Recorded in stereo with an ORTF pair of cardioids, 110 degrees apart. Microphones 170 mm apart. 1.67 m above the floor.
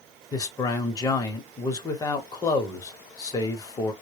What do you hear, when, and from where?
0.3 s a man speaking: 20° left, 0.9 m